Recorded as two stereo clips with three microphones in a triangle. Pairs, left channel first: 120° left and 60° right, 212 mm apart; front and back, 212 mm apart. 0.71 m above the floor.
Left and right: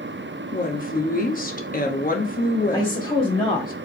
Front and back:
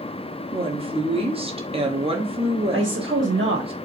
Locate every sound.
0.5 s a woman speaking: 130° left, 0.9 m
2.7 s a woman speaking: straight behind, 1.0 m